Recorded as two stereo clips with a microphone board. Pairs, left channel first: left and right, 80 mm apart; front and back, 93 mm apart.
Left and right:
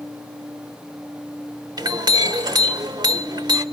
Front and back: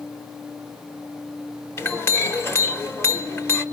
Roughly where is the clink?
Ahead right.